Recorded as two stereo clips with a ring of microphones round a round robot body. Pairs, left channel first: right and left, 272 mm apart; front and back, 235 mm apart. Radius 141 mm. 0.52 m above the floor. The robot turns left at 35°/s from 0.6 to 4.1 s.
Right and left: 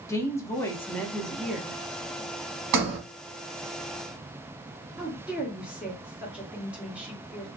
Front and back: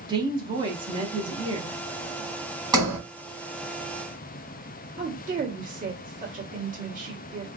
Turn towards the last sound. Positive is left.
turn(degrees=170)